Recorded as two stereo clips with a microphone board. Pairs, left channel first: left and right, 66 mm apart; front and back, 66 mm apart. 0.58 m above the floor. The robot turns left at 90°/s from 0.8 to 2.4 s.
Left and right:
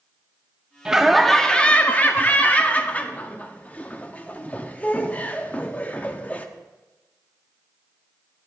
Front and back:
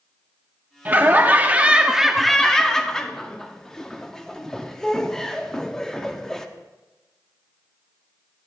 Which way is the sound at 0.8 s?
155° right.